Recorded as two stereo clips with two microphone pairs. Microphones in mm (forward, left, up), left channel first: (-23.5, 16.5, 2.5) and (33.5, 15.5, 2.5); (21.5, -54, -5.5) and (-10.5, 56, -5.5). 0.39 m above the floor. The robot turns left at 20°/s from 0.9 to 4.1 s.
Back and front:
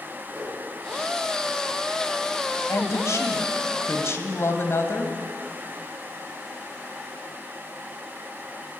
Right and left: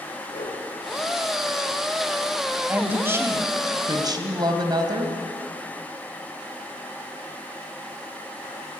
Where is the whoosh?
70° right, 6.5 m.